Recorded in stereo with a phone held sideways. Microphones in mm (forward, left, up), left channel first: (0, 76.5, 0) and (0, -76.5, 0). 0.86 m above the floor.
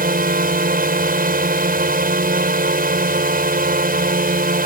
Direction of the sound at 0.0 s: 75° right (ahead or behind).